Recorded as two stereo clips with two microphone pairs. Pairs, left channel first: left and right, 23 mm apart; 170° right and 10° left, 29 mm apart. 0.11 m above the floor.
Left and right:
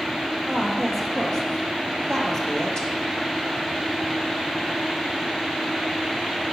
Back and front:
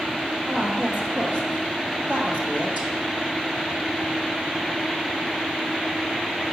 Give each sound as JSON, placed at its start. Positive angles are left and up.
{"t": 0.5, "sound": "a woman speaking", "azimuth_deg": -5, "distance_m": 2.5}